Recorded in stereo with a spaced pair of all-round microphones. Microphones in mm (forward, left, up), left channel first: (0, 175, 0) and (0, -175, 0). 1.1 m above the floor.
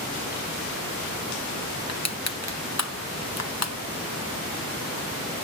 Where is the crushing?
45° left (ahead or behind), 0.9 m.